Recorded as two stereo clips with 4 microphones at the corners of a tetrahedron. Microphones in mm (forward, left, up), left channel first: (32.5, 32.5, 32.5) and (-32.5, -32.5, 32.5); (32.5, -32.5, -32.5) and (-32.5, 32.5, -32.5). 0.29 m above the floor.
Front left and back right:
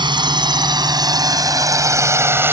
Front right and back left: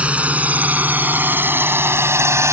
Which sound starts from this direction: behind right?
A drone, at 0.0 s.